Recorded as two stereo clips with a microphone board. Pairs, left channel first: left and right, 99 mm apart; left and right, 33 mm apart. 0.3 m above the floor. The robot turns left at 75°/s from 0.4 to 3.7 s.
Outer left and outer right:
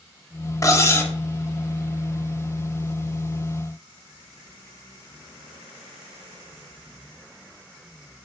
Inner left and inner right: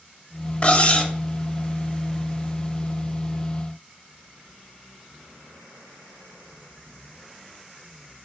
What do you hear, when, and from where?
0.6 s cutlery clinking: 80° left, 0.5 m; by 1.1 s 40° left, 0.5 m